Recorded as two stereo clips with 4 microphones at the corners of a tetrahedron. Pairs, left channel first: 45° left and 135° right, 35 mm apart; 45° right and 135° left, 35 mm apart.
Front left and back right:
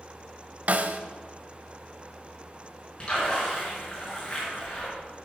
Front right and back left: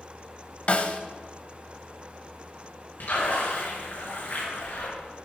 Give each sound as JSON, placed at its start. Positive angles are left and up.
{"t": 0.7, "sound": "a snare drum", "azimuth_deg": -95, "distance_m": 0.8}
{"t": 3.0, "sound": "a splash", "azimuth_deg": -25, "distance_m": 6.0}